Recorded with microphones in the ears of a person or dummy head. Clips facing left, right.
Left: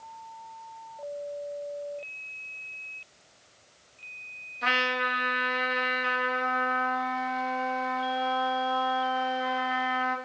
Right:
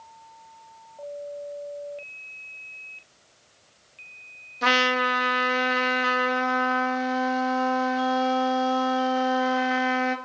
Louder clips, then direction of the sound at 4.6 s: Right 7 dB; 50° right (ahead or behind).